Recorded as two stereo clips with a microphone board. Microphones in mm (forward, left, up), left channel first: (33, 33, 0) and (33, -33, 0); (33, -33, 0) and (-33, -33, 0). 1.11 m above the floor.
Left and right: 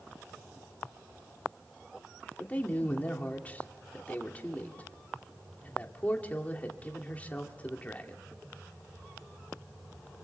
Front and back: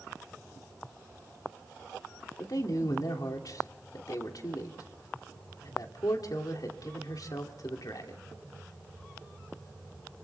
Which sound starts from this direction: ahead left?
A man speaking, at 2.4 s.